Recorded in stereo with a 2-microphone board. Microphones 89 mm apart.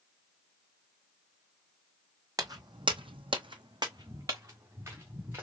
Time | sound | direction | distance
2.4 | footsteps | 40° right (ahead or behind) | 0.7 m